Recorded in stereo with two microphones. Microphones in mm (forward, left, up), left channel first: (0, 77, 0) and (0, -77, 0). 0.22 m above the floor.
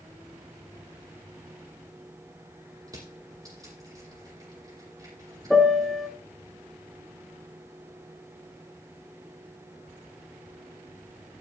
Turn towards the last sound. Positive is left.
turn(degrees=0)  # may be behind; listen again after turning